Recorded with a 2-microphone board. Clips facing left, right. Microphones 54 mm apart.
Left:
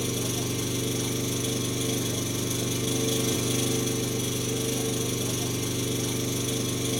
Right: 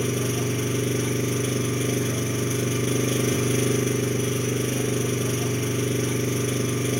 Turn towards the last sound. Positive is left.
turn(degrees=-40)  # may be behind; listen again after turning